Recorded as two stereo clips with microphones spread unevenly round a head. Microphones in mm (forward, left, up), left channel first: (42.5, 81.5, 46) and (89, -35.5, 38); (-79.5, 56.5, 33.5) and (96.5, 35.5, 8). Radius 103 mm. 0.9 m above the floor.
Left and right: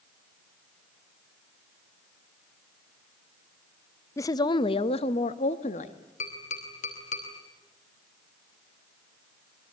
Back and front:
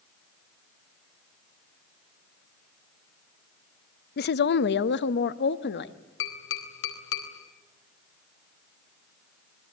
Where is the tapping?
160° left, 4 m.